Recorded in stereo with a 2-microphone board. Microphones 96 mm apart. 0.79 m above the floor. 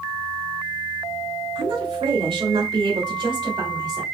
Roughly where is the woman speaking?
Right.